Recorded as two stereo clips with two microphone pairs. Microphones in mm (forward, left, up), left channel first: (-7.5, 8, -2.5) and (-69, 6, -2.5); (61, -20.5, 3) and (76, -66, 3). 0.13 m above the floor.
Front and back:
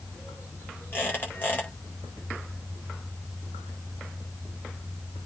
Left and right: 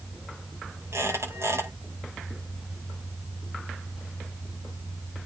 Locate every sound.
0.9 s a squeak: 55° right, 7 m